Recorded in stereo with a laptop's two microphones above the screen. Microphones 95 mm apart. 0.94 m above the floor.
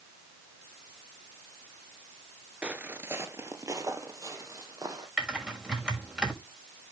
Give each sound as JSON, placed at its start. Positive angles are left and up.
{"t": 2.6, "sound": "footsteps", "side_deg": -15, "distance_m": 0.9}
{"t": 5.2, "sound": "typing on a keyboard", "side_deg": -10, "distance_m": 5.5}